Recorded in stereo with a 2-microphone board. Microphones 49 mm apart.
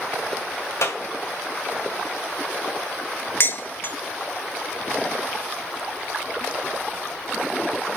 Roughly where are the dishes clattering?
Left.